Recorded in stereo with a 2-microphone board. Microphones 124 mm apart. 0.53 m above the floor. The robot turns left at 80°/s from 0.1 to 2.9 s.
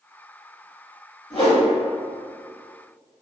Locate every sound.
1.3 s a whoosh: 45° left (ahead or behind), 1.7 m; by 1.6 s 30° left (ahead or behind), 1.7 m